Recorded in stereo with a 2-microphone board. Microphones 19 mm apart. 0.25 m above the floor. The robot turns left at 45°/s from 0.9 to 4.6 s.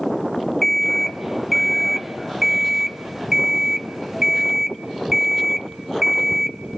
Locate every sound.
0.6 s an alarm clock: 15° left (ahead or behind), 0.6 m; by 6.8 s 20° right (ahead or behind), 0.6 m